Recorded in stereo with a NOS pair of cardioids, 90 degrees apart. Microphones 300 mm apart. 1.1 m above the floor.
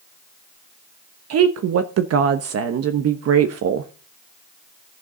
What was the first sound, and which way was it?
A woman speaking, 55° right.